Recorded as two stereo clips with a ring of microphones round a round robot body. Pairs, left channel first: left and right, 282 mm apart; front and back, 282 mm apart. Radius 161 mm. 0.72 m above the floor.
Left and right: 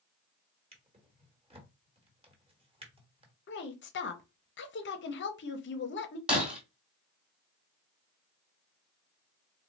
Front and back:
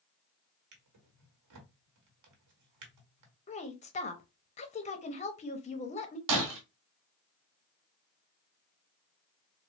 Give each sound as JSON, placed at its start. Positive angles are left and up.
{"t": 0.7, "sound": "a drawer", "azimuth_deg": -160, "distance_m": 1.3}
{"t": 3.5, "sound": "a woman speaking", "azimuth_deg": 60, "distance_m": 0.6}
{"t": 6.3, "sound": "breaking glass", "azimuth_deg": -175, "distance_m": 1.5}